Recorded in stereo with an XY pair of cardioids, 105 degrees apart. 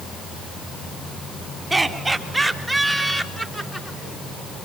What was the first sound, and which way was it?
Laughter, 15° right.